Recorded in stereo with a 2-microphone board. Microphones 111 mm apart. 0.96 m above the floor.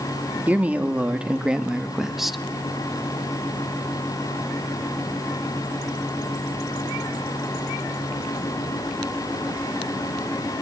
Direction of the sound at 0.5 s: 15° right (ahead or behind).